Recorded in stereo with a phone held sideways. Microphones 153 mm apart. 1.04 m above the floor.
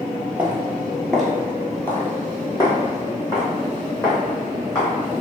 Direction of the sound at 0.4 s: 15° right (ahead or behind).